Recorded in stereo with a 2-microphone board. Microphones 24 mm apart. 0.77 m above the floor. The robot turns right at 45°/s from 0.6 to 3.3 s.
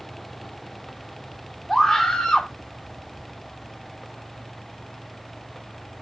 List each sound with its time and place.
1.7 s a scream: 10° left, 2 m; by 2.5 s 45° left, 2 m